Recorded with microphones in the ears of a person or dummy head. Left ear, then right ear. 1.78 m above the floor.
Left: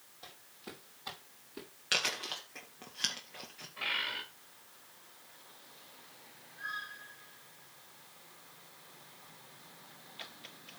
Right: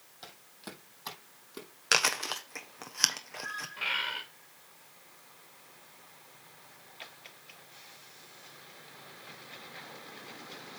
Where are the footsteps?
50° right (ahead or behind), 4 m.